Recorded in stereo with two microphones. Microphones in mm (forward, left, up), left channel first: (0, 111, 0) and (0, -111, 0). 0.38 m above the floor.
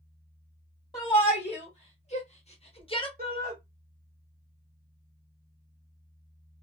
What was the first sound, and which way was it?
A shout, 25° left (ahead or behind).